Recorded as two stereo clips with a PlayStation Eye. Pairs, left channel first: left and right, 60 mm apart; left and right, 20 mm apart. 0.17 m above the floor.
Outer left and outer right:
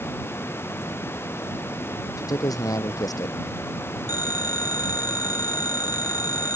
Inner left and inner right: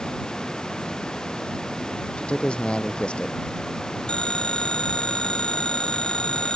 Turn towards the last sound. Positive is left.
turn(degrees=65)  # may be behind; listen again after turning